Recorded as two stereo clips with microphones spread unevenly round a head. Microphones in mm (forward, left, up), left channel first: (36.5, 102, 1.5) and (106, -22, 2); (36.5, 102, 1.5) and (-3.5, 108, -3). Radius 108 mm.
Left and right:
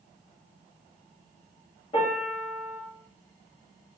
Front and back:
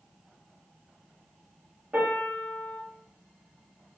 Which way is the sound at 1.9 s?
150° left.